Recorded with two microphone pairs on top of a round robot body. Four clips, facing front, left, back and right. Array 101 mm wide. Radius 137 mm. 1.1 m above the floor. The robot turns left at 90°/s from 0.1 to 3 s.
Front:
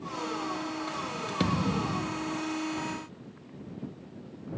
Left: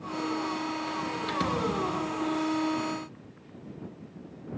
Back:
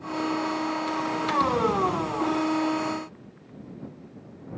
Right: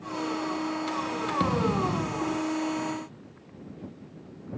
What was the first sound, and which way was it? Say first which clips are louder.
A thud: right 3 dB, back 5 dB; 25° right.